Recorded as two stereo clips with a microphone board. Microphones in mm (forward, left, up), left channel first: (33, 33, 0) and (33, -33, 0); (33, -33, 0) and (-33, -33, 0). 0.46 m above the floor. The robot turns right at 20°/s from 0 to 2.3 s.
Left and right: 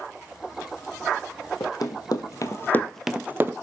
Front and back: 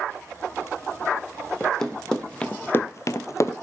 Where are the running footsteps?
80° left, 1.4 m; by 3.6 s 45° right, 0.9 m.